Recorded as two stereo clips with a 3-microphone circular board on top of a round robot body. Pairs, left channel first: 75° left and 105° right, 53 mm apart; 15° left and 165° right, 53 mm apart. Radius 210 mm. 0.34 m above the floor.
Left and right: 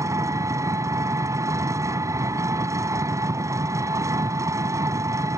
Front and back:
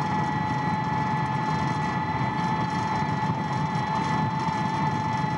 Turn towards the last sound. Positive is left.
turn(degrees=-80)